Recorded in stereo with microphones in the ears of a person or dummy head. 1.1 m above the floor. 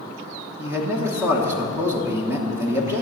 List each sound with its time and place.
0.6 s a man speaking: 10° right (ahead or behind), 0.9 m